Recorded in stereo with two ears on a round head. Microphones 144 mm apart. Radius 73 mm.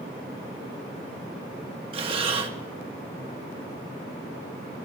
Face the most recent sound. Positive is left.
turn(degrees=-35)  # may be behind; listen again after turning